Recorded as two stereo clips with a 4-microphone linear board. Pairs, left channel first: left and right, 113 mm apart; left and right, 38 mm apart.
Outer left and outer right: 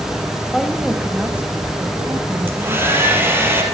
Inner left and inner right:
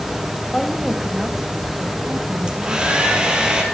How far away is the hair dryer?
About 3.5 m.